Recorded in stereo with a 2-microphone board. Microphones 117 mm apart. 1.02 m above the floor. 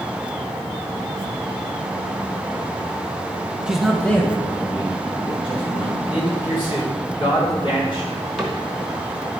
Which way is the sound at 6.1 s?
45° left (ahead or behind).